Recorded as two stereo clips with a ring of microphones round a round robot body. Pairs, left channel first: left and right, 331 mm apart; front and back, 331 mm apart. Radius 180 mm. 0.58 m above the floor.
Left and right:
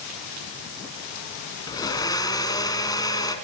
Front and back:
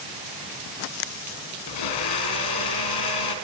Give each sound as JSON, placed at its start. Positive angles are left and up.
{"t": 1.7, "sound": "a blender", "azimuth_deg": 10, "distance_m": 3.0}